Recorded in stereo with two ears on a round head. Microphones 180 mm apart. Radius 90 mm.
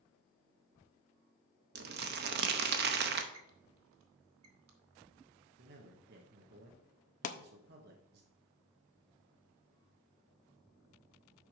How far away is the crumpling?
About 0.8 m.